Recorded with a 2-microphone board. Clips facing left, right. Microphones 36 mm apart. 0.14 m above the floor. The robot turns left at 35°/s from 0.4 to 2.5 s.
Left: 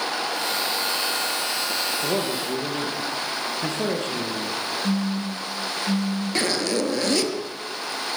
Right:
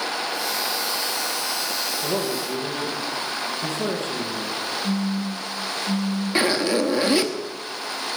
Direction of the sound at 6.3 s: 15° right (ahead or behind).